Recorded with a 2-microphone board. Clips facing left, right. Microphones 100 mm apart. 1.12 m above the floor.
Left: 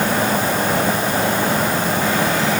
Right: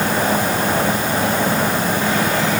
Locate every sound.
Only background noise.